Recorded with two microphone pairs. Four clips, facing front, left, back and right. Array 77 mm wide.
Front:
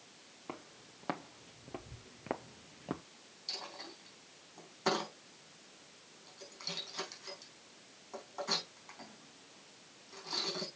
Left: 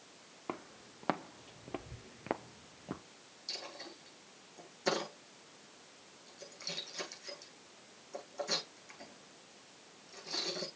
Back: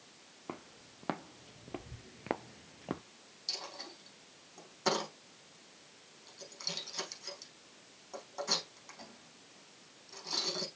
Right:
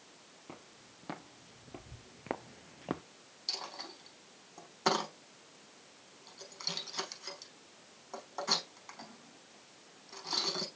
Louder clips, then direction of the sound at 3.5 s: Right 3 dB, back 1 dB; 90° right.